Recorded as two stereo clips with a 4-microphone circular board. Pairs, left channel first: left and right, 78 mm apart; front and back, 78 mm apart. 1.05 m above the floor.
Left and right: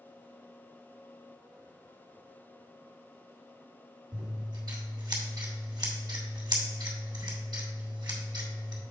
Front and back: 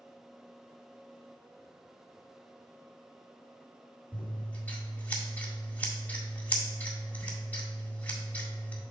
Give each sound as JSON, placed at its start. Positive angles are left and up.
{"t": 4.1, "sound": "scissors", "azimuth_deg": -70, "distance_m": 1.8}